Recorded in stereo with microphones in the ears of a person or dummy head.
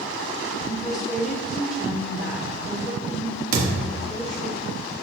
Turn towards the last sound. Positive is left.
turn(degrees=-45)  # may be behind; listen again after turning